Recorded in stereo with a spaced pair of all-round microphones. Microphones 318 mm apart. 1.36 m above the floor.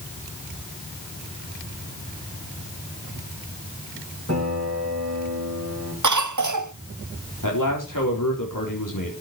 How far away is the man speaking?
About 4 m.